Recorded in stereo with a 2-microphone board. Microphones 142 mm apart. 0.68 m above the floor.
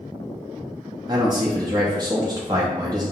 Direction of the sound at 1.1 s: 30° right (ahead or behind).